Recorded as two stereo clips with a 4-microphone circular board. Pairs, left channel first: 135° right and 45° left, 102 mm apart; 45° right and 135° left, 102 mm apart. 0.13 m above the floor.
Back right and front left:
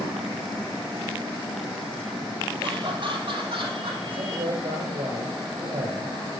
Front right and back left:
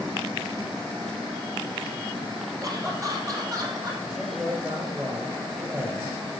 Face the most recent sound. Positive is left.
turn(degrees=70)